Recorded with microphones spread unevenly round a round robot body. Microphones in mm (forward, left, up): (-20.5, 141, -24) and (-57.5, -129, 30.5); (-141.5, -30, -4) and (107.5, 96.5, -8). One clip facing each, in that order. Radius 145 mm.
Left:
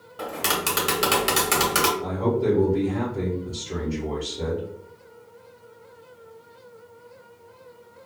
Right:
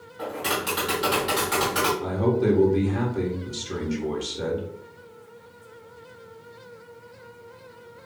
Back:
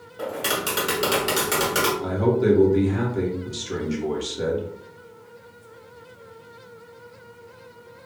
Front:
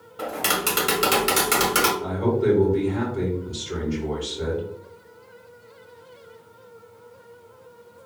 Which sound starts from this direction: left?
Tapping, at 0.2 s.